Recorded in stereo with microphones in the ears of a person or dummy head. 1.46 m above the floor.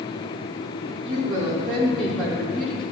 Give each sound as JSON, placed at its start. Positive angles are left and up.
{"t": 1.1, "sound": "a woman speaking", "side_deg": 5, "distance_m": 2.5}